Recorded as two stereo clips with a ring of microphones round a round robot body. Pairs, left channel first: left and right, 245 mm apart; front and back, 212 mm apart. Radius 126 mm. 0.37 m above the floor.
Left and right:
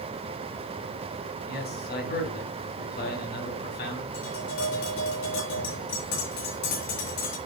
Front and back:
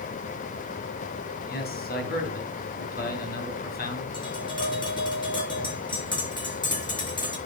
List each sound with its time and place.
1.5 s a man speaking: 40° left, 3 m
4.1 s tapping: 70° left, 6 m